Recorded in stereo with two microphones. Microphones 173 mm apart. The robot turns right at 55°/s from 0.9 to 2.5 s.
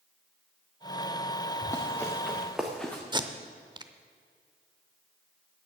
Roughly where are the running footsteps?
Left.